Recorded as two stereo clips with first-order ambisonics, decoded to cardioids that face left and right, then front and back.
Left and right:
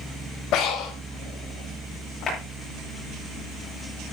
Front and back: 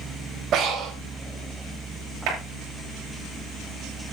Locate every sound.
0.5 s breathing: 130° left, 2.5 m
2.3 s a clap: 155° left, 9.5 m